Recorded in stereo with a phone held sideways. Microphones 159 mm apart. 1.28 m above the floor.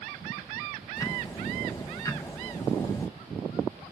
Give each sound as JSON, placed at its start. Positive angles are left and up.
{"t": 1.0, "sound": "ticking", "side_deg": 20, "distance_m": 1.2}